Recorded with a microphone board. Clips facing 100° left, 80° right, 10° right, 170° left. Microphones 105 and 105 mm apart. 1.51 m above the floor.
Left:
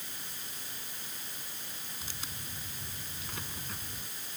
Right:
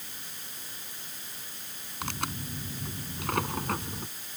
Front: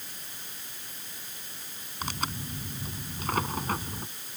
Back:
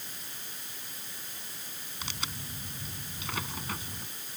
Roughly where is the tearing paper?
Ahead right.